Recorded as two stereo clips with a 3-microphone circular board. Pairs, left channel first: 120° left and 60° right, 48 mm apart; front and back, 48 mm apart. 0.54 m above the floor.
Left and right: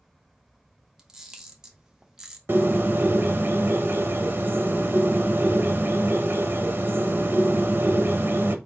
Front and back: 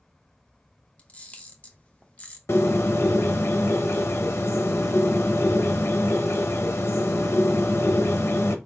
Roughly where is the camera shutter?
Ahead.